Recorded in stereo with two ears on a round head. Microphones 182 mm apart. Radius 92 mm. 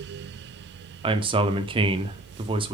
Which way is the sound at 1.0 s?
25° right (ahead or behind).